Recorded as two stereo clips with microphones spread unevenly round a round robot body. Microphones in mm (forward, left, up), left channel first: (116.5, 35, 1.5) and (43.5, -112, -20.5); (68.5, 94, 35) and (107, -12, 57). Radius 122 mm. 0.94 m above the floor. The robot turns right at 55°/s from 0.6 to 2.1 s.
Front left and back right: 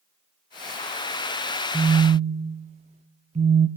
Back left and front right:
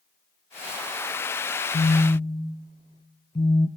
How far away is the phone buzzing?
About 0.5 m.